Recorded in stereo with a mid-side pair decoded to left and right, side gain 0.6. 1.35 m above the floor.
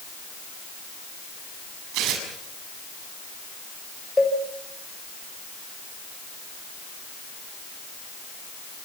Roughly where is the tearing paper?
Right.